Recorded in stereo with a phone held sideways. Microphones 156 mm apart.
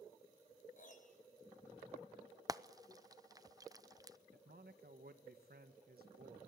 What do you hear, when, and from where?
0.8 s a piano: 55° left (ahead or behind), 3 m
2.5 s frying: 25° right (ahead or behind), 0.5 m
4.3 s a man speaking: 80° right, 1.6 m